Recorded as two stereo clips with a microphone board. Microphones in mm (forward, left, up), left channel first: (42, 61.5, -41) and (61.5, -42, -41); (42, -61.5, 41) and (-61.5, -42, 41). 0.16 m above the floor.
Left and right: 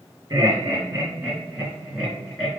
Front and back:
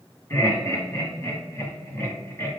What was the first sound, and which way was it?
Laughter, 55° right.